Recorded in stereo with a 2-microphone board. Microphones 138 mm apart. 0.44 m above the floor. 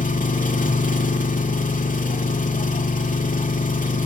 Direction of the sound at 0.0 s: 75° left (ahead or behind).